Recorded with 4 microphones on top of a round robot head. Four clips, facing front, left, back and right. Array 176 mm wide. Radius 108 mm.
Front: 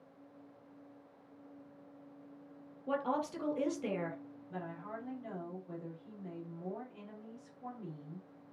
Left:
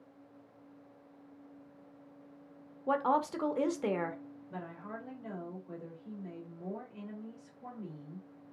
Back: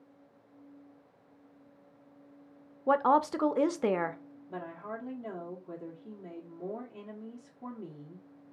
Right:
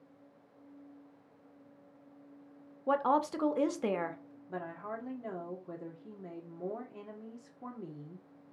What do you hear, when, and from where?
2.9 s a woman speaking: 175° right, 0.9 m
4.5 s a woman speaking: 120° right, 2.0 m